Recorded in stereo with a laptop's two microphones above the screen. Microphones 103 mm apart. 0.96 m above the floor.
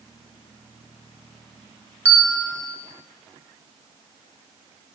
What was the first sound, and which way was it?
A bell, 15° left (ahead or behind).